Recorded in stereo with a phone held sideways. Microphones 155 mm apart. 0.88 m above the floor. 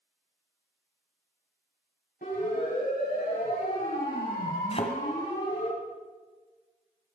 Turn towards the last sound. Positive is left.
turn(degrees=40)  # may be behind; listen again after turning